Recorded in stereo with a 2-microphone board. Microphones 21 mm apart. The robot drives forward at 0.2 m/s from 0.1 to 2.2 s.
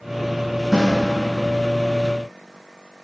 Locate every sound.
0.7 s a snare drum: 20° right (ahead or behind), 1.6 m